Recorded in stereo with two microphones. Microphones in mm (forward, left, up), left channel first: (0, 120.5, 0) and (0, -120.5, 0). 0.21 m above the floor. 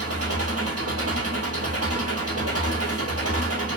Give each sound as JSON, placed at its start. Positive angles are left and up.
{"t": 0.0, "sound": "an engine running", "side_deg": -80, "distance_m": 1.8}